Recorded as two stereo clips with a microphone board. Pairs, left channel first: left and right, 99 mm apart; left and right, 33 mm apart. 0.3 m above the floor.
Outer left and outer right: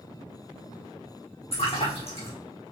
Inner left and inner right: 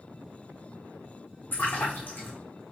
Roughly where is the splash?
Left.